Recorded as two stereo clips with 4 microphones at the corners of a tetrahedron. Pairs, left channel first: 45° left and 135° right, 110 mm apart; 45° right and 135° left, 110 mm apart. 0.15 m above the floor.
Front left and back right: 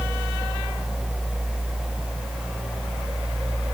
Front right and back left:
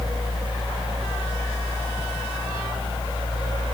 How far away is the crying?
I don't hear crying.